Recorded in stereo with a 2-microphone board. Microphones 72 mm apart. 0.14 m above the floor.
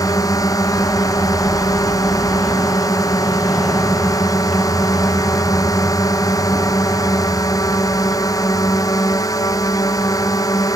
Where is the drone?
55° left (ahead or behind).